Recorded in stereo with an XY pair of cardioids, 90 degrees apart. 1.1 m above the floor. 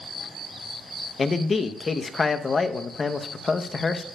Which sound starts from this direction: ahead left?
A man speaking, at 1.2 s.